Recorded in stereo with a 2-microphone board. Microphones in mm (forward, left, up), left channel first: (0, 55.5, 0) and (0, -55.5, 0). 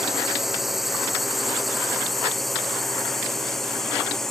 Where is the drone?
5° right (ahead or behind); by 4.3 s centre (ahead or behind).